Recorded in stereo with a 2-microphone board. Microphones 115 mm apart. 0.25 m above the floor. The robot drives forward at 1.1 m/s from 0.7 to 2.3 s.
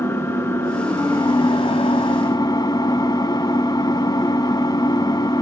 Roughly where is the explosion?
I don't hear an explosion.